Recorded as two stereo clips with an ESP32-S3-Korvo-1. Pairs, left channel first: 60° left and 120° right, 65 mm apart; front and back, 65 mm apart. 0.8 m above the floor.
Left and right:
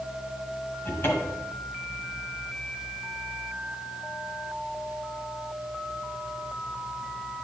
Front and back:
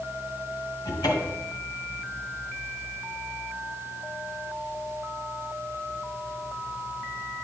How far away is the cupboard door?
About 2 m.